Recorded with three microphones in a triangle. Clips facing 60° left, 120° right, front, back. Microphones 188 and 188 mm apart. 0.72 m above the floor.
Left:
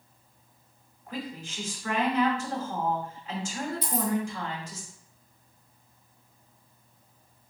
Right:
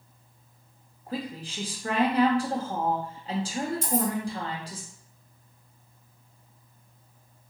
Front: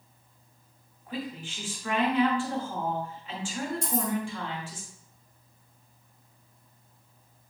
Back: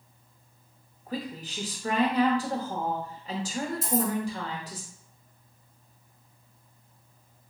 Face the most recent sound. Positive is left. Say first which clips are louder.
# right 4 dB, back 5 dB
turn(degrees=-95)